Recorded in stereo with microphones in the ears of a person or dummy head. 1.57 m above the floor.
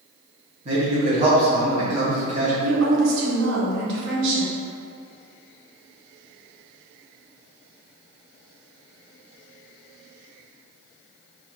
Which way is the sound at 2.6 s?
65° right (ahead or behind).